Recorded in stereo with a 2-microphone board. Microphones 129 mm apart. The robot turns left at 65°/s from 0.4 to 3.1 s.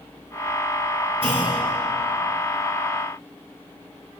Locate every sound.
1.2 s a clunk: 45° right (ahead or behind), 7.5 m; by 1.6 s 20° right (ahead or behind), 7.5 m